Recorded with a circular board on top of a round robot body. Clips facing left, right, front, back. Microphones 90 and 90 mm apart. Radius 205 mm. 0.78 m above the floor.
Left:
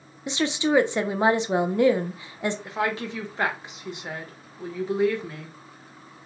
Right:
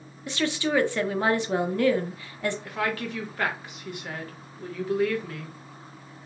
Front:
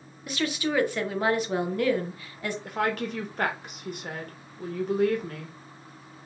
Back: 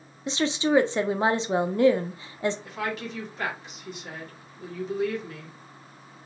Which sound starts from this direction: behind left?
A woman speaking, at 0.3 s.